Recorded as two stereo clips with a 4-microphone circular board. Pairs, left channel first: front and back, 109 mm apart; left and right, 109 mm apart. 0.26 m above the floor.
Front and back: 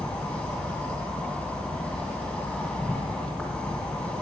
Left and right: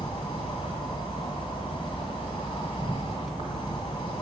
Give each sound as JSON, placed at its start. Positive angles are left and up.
{"t": 0.0, "sound": "an insect", "azimuth_deg": 75, "distance_m": 3.0}